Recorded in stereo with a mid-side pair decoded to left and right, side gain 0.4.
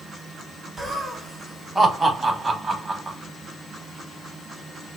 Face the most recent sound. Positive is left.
turn(degrees=-25)